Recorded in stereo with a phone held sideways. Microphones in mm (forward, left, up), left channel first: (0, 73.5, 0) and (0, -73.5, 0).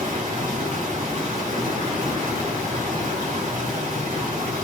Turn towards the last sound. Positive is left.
turn(degrees=-55)  # may be behind; listen again after turning